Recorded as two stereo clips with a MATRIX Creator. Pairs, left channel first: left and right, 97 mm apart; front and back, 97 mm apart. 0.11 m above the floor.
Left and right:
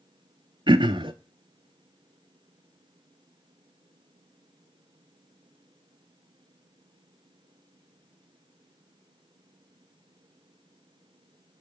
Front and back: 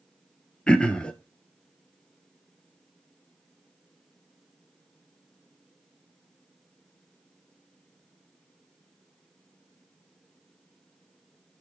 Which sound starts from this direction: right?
Throat clearing, at 0.7 s.